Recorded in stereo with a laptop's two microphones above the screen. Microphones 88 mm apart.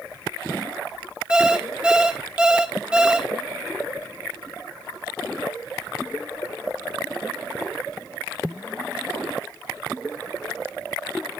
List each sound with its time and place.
1.3 s an alarm clock: 10° right (ahead or behind), 1.7 m